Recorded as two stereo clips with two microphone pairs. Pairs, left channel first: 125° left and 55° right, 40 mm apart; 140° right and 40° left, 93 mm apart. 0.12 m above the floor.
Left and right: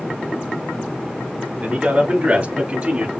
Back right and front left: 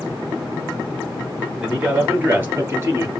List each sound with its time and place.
1.6 s a man speaking: 40° right, 2 m; by 3.1 s 15° right, 2.5 m